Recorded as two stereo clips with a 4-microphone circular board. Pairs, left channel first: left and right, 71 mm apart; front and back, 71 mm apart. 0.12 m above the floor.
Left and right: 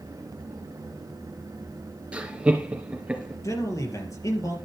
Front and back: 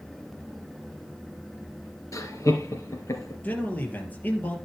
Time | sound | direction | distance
2.1 | laughter | 20° right | 2.5 m
3.4 | a man speaking | 60° left | 3 m